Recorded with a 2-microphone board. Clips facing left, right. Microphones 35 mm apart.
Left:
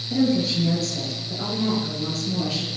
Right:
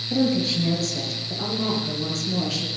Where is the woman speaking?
Centre (ahead or behind), 7 m; by 2.7 s 15° left (ahead or behind), 6.5 m.